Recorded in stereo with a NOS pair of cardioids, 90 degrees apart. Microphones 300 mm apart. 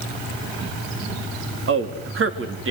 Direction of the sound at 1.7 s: 45° right.